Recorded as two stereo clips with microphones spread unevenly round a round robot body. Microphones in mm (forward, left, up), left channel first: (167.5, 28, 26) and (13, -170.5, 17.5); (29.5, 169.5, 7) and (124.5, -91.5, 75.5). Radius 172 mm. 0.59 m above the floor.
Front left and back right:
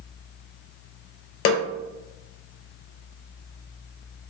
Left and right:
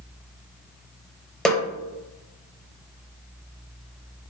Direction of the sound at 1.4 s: 15° left.